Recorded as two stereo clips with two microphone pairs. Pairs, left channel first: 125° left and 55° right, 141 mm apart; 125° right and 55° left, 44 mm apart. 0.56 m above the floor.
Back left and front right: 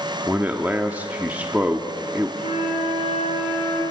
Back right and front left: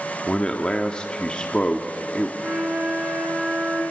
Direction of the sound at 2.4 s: 100° left.